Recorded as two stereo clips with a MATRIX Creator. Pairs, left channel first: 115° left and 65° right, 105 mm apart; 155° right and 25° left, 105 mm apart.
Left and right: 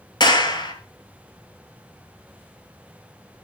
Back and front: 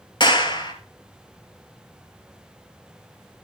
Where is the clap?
160° left, 2.5 m.